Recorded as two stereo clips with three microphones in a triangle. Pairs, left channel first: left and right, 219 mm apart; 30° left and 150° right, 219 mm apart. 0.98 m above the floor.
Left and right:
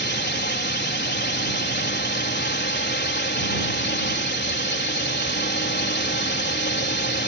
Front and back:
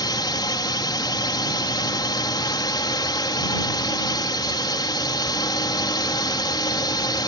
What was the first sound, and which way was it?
A drone, 95° left.